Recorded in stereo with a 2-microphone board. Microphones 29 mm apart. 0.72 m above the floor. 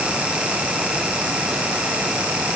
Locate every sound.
Only background noise.